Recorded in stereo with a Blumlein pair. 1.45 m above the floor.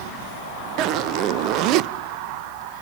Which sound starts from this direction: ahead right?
A zipper, at 0.8 s.